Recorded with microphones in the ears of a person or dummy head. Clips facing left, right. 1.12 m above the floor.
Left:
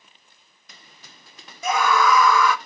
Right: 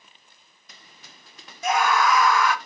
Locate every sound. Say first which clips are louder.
1.6 s a scream: left 1 dB; 70° left (ahead or behind), 0.9 m